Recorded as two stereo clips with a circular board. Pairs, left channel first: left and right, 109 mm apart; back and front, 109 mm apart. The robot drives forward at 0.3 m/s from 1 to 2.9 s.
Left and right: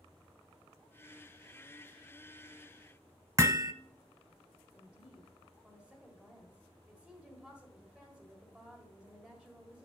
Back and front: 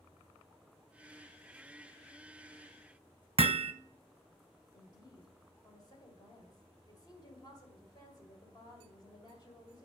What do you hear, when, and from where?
3.4 s hammering: 30° right, 0.5 m
4.7 s a woman speaking: 165° right, 1.6 m